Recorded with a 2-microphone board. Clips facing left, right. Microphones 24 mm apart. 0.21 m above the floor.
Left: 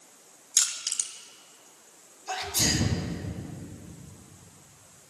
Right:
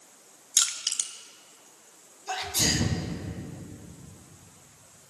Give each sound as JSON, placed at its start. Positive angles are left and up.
{"t": 0.6, "sound": "crushing", "side_deg": -55, "distance_m": 1.2}
{"t": 2.3, "sound": "a sneeze", "side_deg": -10, "distance_m": 1.7}